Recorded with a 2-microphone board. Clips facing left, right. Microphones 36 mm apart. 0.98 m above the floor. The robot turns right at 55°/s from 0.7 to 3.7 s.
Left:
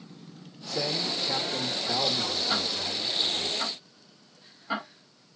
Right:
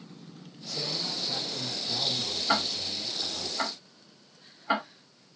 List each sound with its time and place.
0.7 s a man speaking: 50° left, 2.0 m; by 3.5 s 155° right, 2.0 m
2.5 s ticking: 75° right (ahead or behind), 2.5 m; by 5.4 s 35° right (ahead or behind), 2.5 m